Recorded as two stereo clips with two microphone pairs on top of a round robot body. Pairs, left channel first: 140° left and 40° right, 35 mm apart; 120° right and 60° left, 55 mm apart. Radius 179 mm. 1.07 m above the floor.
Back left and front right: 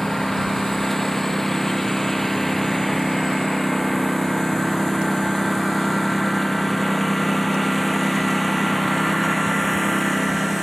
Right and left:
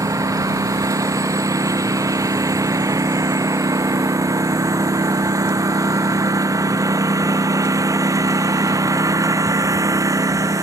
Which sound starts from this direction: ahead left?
A lawn mower, at 0.0 s.